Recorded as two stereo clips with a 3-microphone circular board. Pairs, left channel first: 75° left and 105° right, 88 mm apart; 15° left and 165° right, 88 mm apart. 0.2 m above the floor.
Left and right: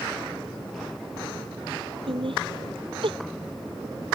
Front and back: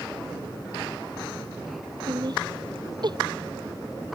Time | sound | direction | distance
2.1 | laughter | 125° right | ?